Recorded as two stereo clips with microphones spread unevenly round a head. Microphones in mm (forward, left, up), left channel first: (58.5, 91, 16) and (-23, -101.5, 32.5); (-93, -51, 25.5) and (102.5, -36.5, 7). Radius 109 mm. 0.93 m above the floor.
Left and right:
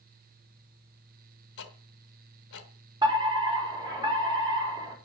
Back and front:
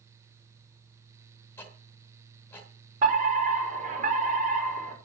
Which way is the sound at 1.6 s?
105° left.